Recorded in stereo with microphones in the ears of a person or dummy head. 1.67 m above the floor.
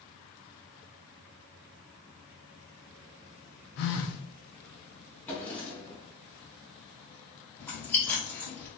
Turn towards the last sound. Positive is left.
turn(degrees=10)  # may be behind; listen again after turning